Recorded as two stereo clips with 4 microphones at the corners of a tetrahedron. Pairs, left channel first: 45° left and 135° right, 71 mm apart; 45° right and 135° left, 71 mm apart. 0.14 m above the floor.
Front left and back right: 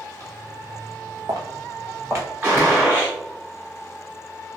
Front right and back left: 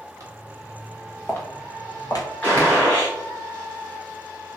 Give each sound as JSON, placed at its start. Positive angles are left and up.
{"t": 0.2, "sound": "footsteps", "azimuth_deg": 175, "distance_m": 1.0}
{"t": 2.4, "sound": "a gunshot", "azimuth_deg": -95, "distance_m": 1.8}